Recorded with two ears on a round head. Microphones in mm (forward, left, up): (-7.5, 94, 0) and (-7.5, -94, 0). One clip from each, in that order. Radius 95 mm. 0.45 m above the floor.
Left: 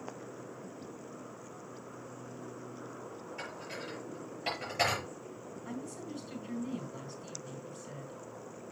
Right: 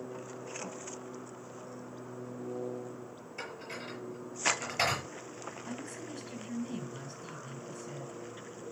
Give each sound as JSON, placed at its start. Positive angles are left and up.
{"t": 3.4, "sound": "dishes clattering", "side_deg": -15, "distance_m": 7.0}
{"t": 5.7, "sound": "a woman speaking", "side_deg": -10, "distance_m": 3.5}